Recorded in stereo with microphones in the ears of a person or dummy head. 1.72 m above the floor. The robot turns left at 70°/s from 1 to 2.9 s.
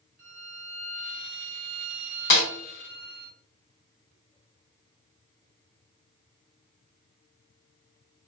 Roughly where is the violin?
Ahead.